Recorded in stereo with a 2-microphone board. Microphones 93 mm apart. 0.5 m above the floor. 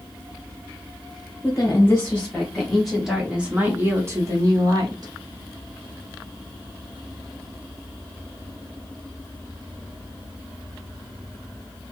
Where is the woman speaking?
25° left (ahead or behind), 1.4 m; by 5.1 s 45° right (ahead or behind), 1.4 m.